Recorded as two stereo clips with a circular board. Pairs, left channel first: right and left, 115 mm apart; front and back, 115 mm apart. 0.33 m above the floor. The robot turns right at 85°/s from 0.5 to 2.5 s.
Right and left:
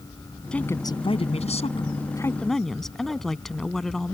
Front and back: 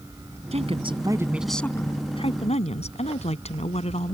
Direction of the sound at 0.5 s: 170° right.